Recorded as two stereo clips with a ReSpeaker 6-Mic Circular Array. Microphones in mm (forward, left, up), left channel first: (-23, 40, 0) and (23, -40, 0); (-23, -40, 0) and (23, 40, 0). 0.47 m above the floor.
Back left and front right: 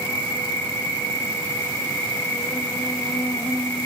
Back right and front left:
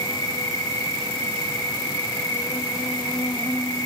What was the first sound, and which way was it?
An insect, 170° right.